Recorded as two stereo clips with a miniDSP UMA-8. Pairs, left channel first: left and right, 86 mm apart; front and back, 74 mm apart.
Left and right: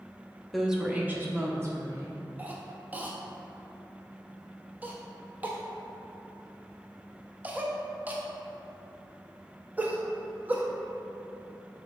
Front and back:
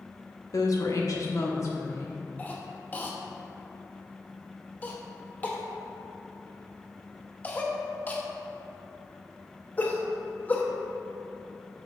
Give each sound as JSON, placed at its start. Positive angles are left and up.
{"t": 0.5, "sound": "a woman speaking", "azimuth_deg": 0, "distance_m": 0.9}
{"t": 2.4, "sound": "a cough", "azimuth_deg": -45, "distance_m": 0.6}